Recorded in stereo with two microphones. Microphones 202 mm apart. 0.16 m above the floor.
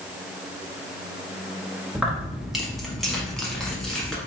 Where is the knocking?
I don't hear knocking.